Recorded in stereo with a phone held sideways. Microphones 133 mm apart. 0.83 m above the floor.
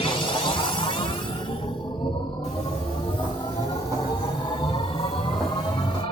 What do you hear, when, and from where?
0.0 s a machine running: 45° left (ahead or behind), 0.9 m
2.4 s footsteps: 55° right (ahead or behind), 1.4 m; by 6.0 s 10° left (ahead or behind), 2.5 m